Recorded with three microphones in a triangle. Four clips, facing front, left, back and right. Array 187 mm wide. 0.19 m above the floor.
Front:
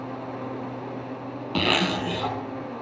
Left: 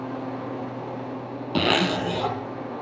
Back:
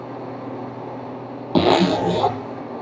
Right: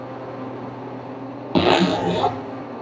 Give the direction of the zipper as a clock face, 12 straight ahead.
5 o'clock.